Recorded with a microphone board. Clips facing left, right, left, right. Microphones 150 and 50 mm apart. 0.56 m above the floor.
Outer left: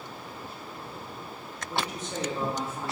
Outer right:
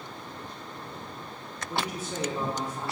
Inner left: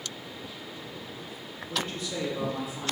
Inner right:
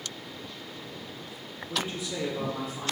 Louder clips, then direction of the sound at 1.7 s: Even, even; 20° right (ahead or behind).